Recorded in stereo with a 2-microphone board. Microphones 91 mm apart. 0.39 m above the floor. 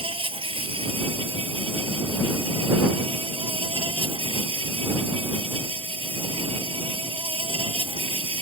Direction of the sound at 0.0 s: 80° right.